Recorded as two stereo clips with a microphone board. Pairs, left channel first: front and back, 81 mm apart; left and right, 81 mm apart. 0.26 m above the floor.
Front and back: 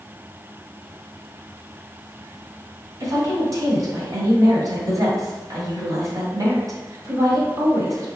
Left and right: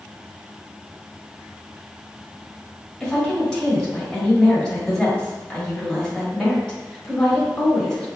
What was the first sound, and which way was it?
A woman speaking, 165° left.